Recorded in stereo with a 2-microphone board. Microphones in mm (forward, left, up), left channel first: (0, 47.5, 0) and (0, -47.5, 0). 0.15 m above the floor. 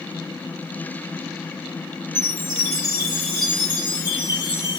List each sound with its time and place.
2.1 s a chime: 50° right (ahead or behind), 2.5 m